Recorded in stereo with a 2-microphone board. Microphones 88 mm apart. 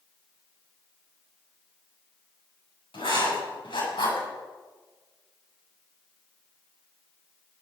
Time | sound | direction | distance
2.9 | writing | 75° left (ahead or behind) | 8 m